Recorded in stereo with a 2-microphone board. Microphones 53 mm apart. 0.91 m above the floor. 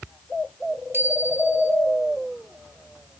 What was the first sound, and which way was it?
A bicycle bell, 45° right (ahead or behind).